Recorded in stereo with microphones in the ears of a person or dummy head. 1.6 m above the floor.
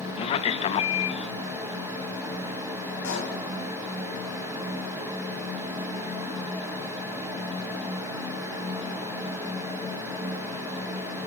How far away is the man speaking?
About 1.3 m.